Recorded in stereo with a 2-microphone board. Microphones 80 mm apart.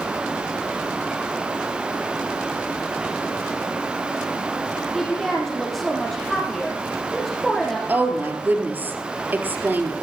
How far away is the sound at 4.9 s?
About 3.5 m.